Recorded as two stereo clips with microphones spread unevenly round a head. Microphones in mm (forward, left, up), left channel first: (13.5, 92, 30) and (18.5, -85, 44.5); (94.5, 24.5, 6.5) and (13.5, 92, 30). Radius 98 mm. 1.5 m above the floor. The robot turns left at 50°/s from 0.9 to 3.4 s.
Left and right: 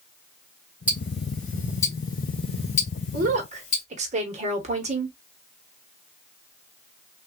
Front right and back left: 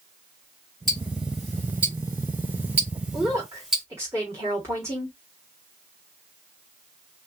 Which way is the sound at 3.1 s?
130° right.